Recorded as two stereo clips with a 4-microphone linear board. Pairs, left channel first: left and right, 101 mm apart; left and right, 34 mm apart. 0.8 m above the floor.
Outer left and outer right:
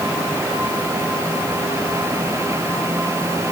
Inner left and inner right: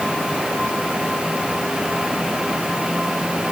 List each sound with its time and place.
Only background noise.